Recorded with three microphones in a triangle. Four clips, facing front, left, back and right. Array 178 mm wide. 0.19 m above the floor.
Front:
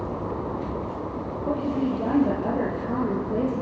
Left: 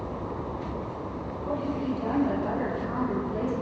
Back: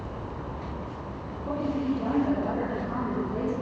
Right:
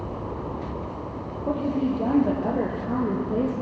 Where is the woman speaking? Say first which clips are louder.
Right 5 dB, front 2 dB; 60° right, 5 m.